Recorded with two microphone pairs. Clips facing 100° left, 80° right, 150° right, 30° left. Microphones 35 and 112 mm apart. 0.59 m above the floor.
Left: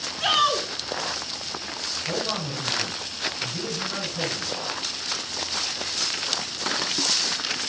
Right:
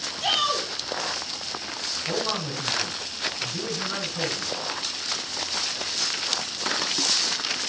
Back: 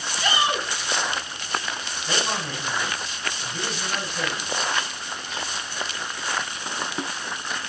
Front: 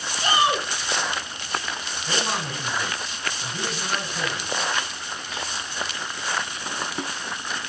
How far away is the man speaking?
About 6 m.